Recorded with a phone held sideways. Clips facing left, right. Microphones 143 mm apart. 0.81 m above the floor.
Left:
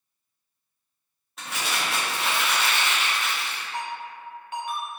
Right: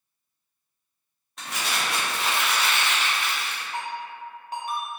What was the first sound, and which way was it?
Crumpling, centre (ahead or behind).